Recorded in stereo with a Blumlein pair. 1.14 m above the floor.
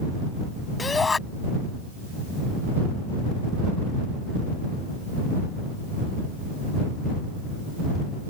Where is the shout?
10° left.